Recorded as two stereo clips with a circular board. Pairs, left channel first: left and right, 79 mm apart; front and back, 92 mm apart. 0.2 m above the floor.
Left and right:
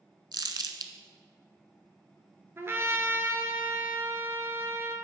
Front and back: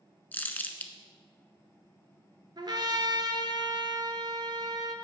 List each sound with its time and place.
0.3 s crumpling: 70° right, 0.6 m
2.6 s a trumpet: 145° right, 0.8 m